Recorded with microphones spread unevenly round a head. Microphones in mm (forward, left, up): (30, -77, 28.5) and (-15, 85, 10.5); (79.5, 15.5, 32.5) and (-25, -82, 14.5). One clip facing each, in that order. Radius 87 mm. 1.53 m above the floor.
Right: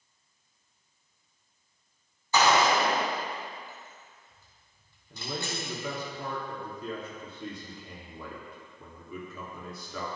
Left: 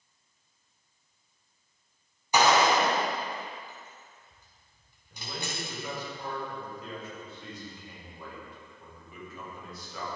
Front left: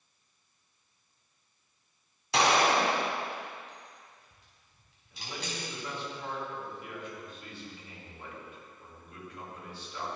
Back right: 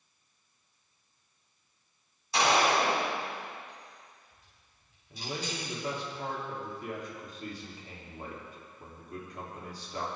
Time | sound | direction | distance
2.3 | a gunshot | 30° left | 4 m
5.1 | a man speaking | 85° right | 4 m